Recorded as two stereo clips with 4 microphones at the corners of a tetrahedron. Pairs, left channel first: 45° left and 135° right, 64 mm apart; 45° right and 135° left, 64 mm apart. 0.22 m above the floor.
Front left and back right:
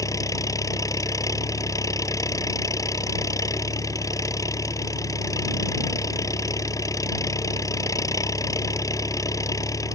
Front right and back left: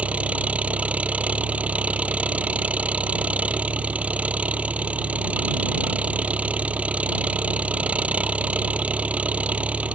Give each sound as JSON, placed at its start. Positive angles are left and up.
{"t": 0.0, "sound": "an engine running", "azimuth_deg": 65}